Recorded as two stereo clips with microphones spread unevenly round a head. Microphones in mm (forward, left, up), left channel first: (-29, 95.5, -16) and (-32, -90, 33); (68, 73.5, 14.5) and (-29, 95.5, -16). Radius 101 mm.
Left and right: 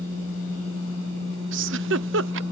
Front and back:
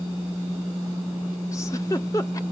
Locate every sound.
1.5 s a giggle: 80° right